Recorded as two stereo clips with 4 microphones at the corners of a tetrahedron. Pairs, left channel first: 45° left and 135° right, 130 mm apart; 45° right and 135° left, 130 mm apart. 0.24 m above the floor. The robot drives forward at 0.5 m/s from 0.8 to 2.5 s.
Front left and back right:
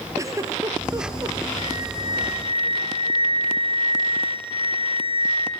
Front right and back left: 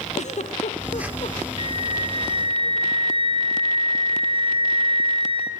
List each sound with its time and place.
0.2 s a giggle: 70° right, 2.5 m; by 1.4 s 75° right, 2.5 m
1.6 s a flute: straight behind, 3.5 m